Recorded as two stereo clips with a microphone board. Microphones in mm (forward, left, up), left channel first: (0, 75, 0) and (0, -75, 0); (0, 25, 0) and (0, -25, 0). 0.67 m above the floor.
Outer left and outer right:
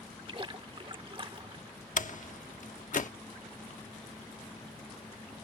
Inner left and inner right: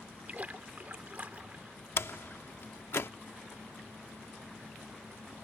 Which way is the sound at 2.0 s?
60° left (ahead or behind).